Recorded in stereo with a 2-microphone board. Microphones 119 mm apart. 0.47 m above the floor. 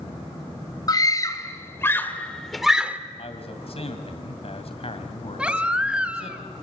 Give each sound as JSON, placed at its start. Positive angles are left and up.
{"t": 0.9, "sound": "a scream", "side_deg": 35, "distance_m": 3.0}
{"t": 3.2, "sound": "a man speaking", "side_deg": 60, "distance_m": 2.5}
{"t": 5.4, "sound": "a baby crying", "side_deg": -10, "distance_m": 1.7}